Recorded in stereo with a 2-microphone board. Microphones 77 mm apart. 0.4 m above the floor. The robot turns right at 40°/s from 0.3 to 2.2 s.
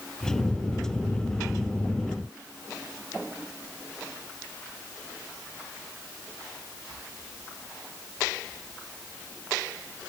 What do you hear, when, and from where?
Only background noise.